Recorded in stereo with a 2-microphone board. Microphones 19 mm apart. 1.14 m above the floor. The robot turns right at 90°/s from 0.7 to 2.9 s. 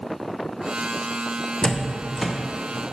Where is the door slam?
50° left (ahead or behind), 0.5 m; by 2.3 s 10° right (ahead or behind), 0.5 m.